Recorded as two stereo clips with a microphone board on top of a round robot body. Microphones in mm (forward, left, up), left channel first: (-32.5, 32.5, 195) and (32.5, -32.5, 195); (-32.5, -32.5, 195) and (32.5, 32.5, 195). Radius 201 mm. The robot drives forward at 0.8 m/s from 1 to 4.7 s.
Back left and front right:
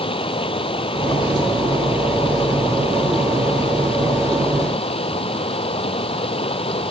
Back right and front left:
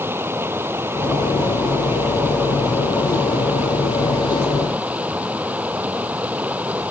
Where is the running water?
110° left; by 6.9 s 120° left.